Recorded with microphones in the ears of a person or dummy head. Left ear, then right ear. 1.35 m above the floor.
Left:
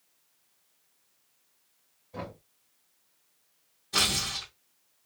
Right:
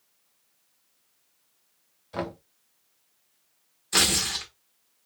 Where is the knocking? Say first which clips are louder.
Right 8 dB; 60° right (ahead or behind), 0.9 m.